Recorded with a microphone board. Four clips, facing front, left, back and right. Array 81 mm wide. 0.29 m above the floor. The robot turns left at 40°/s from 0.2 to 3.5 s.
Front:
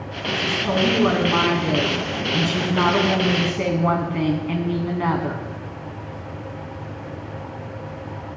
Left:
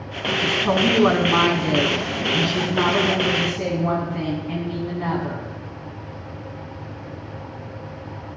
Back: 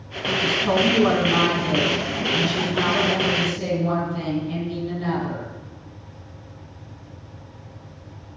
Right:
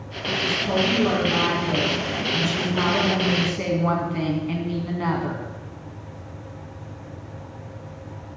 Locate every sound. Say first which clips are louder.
0.4 s a woman speaking: left 3 dB, back 1 dB; 110° left, 2 m; by 5.4 s 15° right, 2 m